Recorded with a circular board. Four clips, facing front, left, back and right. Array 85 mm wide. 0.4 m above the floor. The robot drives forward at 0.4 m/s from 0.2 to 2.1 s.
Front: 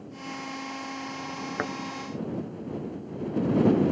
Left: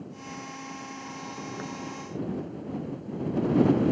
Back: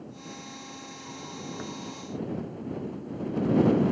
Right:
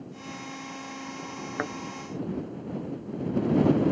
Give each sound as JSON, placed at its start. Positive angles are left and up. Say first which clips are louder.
{"t": 1.6, "sound": "a thud", "louder": "right 8 dB, front 9 dB", "azimuth_deg": -40}